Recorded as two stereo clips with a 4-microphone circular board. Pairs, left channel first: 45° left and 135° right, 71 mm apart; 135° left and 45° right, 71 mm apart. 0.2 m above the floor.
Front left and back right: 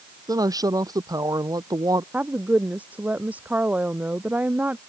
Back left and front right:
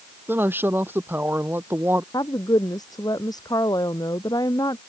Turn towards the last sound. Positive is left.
turn(degrees=155)